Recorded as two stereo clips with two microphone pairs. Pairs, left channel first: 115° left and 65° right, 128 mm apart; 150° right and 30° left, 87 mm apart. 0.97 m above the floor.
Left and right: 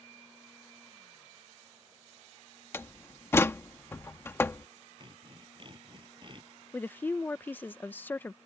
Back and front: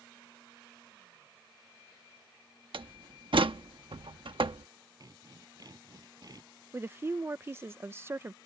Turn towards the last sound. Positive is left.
turn(degrees=50)